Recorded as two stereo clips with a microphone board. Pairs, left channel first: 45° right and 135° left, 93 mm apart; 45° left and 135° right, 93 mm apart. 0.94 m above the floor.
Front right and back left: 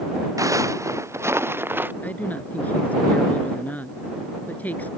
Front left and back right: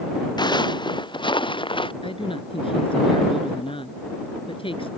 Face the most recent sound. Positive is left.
turn(degrees=30)